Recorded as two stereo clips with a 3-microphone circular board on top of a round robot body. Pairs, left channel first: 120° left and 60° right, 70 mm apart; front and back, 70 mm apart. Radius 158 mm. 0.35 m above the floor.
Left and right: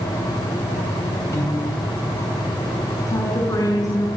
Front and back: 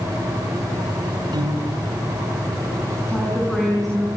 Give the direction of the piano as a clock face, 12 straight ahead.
6 o'clock.